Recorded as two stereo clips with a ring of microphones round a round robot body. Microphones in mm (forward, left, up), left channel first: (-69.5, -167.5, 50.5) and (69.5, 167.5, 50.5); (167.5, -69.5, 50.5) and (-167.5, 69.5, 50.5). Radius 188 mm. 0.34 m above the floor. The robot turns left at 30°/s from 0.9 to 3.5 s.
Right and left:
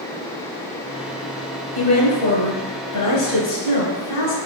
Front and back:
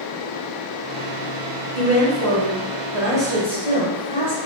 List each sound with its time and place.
1.8 s a woman speaking: 80° right, 1.4 m; by 4.4 s 135° right, 1.4 m